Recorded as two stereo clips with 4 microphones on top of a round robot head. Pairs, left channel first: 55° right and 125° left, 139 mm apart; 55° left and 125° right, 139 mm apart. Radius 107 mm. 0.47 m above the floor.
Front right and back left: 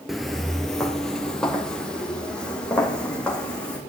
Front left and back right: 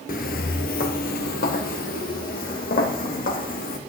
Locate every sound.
0.1 s footsteps: 35° left, 0.5 m; by 3.8 s 30° left, 2.5 m